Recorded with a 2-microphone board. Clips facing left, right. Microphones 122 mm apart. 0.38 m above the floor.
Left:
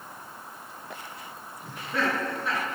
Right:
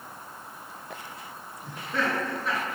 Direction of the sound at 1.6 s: Centre (ahead or behind).